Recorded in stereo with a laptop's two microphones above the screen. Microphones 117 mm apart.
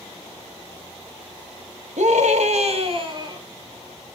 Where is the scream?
80° right, 1.6 m; by 3.4 s 35° right (ahead or behind), 1.9 m.